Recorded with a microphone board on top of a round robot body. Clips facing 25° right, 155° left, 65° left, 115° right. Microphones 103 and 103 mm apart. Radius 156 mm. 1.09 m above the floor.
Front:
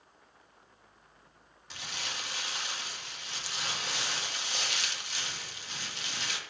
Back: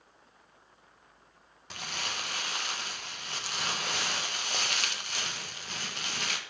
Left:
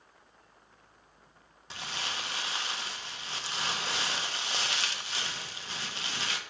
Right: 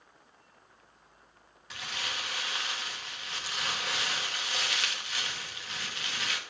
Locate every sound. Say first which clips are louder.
1.7 s crumpling: back 3 dB, left 1 dB; 125° left, 1.7 m